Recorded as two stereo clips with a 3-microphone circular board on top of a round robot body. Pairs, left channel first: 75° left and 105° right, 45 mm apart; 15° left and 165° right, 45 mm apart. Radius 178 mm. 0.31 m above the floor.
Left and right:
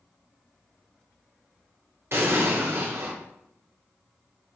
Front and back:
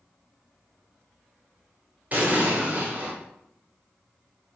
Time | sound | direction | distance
2.1 | an explosion | 115° right | 2.5 m